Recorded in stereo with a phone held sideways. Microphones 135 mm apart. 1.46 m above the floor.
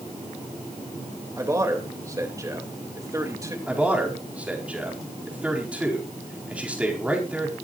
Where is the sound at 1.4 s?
25° right (ahead or behind), 3 m.